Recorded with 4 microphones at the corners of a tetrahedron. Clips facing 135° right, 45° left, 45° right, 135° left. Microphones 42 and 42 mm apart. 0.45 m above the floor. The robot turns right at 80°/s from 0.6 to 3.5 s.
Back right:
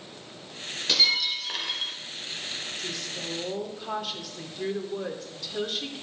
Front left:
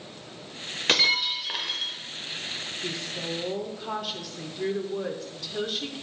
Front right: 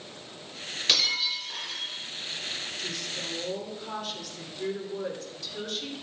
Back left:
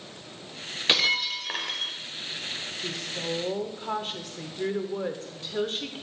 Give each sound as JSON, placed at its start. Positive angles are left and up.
{"t": 0.9, "sound": "breaking glass", "azimuth_deg": 75, "distance_m": 0.7}
{"t": 2.8, "sound": "a woman speaking", "azimuth_deg": 70, "distance_m": 0.9}